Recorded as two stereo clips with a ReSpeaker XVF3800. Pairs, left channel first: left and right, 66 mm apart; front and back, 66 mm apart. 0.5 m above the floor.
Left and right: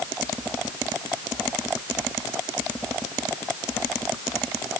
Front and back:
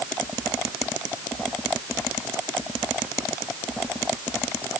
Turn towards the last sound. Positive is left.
No sound to turn to.